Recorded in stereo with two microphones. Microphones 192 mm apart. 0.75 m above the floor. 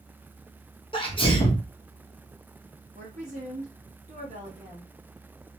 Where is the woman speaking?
40° right (ahead or behind), 1.1 m.